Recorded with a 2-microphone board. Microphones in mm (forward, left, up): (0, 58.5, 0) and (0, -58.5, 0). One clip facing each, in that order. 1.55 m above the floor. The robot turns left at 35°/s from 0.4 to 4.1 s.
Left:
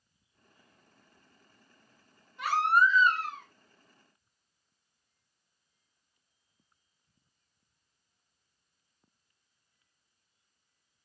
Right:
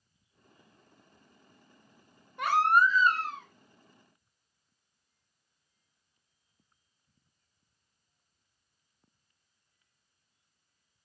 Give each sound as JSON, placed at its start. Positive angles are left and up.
{"t": 2.4, "sound": "a baby crying", "azimuth_deg": -120, "distance_m": 1.2}